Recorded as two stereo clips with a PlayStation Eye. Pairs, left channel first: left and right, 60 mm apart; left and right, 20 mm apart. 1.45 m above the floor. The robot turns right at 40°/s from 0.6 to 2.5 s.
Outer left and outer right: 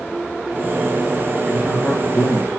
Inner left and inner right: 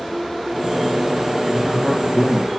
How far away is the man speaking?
About 1.9 m.